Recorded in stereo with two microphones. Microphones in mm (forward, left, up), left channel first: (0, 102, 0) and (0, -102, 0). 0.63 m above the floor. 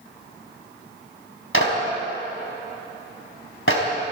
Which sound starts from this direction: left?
A clap, at 1.5 s.